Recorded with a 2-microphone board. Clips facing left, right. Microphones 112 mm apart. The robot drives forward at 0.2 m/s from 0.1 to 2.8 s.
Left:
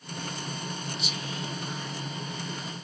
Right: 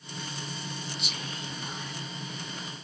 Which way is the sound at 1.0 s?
65° right (ahead or behind).